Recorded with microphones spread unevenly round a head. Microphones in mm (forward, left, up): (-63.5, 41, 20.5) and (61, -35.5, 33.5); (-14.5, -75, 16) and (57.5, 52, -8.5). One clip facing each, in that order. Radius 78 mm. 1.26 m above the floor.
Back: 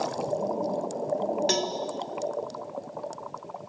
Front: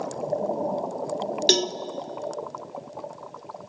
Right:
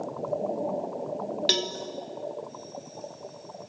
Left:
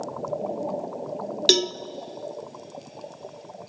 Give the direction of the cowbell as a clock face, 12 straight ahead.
11 o'clock.